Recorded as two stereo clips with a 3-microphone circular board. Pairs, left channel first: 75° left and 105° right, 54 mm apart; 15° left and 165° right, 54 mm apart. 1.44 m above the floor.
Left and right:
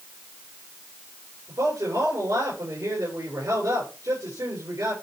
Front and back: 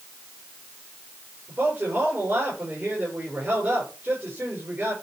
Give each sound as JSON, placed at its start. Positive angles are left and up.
{"t": 1.5, "sound": "a man speaking", "azimuth_deg": -105, "distance_m": 5.5}